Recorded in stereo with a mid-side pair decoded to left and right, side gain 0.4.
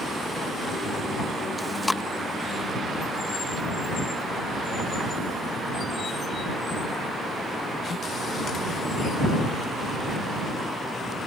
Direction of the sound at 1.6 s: 20° left.